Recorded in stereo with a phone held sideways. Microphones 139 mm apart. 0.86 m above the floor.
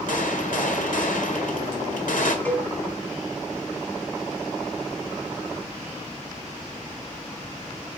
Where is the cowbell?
15° left (ahead or behind), 2 m.